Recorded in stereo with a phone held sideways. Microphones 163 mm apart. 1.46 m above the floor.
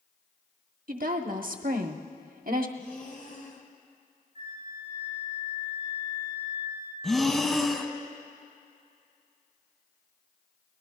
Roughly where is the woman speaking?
Right.